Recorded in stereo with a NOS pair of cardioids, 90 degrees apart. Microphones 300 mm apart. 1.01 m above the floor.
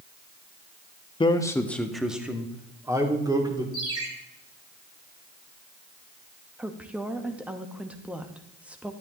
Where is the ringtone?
50° right, 2.5 m.